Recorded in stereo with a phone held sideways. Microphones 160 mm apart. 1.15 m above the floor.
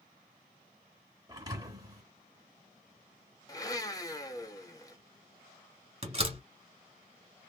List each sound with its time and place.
1.3 s a thud: 20° right (ahead or behind), 1.1 m
3.5 s a blender: 20° left (ahead or behind), 0.8 m
6.0 s a door slam: 35° right (ahead or behind), 1.4 m